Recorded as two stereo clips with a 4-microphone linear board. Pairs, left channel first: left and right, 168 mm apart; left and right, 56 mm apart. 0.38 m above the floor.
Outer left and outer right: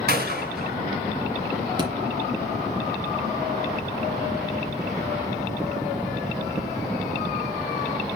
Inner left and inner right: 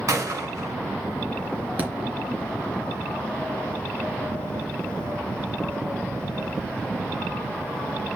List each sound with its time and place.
0.1 s a gunshot: 65° right (ahead or behind), 2.5 m
1.8 s a thud: 30° right (ahead or behind), 3 m